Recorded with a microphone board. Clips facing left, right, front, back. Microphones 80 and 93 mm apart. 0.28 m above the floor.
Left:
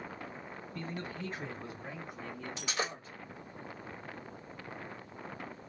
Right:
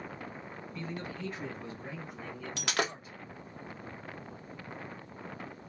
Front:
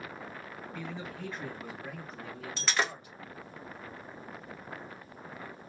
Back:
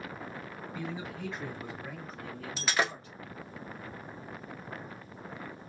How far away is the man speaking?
About 1.7 m.